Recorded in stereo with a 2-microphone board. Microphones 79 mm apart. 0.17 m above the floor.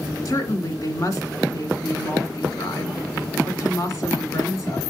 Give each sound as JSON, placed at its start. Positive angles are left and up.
{"t": 0.2, "sound": "a woman speaking", "side_deg": 50, "distance_m": 2.0}